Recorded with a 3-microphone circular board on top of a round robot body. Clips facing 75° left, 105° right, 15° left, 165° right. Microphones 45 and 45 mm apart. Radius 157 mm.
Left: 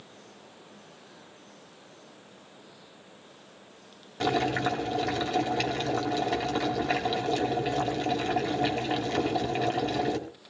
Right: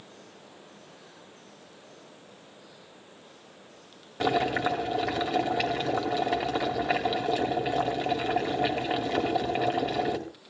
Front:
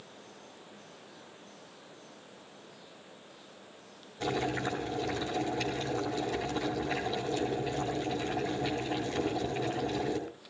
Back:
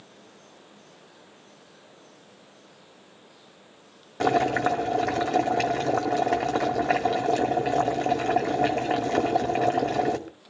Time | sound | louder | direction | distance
4.2 | boiling | right 1 dB, back 10 dB | 170° left | 2 m